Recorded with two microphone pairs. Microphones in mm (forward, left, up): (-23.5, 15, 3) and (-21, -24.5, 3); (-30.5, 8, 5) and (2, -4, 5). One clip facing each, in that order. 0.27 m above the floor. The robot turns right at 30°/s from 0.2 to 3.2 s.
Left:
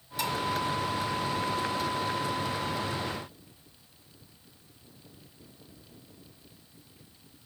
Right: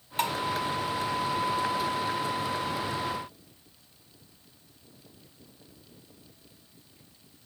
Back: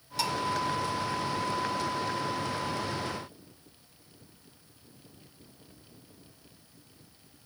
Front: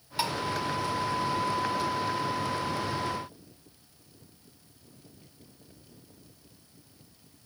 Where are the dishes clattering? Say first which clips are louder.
Right 3 dB, front 1 dB; 80° right, 1.1 m; by 0.3 s 75° right, 1.1 m.